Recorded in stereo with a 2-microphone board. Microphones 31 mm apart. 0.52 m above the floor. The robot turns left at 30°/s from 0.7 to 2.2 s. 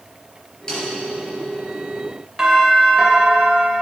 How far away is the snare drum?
About 3.5 m.